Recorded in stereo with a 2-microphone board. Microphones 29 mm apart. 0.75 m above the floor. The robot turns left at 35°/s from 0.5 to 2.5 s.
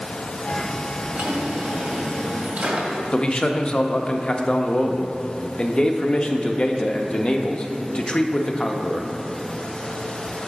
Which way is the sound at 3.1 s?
30° left (ahead or behind).